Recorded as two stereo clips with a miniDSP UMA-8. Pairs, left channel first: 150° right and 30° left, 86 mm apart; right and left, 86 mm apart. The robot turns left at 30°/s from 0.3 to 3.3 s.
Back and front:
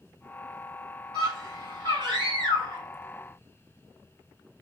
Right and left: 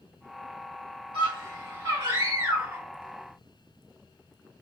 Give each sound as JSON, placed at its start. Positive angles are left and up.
{"t": 1.1, "sound": "a scream", "azimuth_deg": 85, "distance_m": 2.0}